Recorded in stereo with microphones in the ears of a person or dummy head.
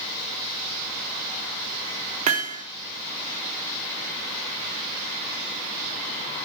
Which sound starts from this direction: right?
Hammering, at 2.3 s.